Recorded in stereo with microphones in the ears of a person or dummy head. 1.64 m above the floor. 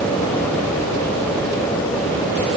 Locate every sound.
Only background noise.